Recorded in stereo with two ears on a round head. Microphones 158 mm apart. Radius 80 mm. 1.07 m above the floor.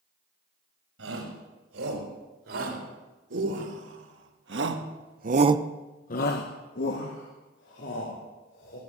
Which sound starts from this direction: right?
A shout, at 1.0 s.